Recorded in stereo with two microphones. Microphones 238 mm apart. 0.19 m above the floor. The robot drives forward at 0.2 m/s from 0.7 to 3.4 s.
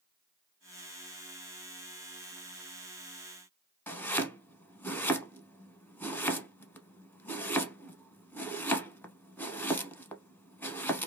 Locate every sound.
3.9 s chopping: 10° left (ahead or behind), 0.6 m